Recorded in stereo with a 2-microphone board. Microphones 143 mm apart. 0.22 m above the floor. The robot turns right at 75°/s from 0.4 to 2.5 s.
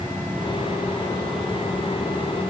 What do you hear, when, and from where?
Only background noise.